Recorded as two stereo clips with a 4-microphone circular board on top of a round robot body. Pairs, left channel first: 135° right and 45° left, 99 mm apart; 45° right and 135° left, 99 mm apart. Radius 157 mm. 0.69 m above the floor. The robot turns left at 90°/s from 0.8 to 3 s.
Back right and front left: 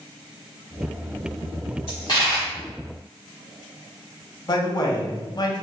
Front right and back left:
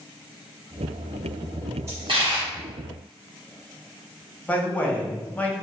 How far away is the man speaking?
About 0.8 m.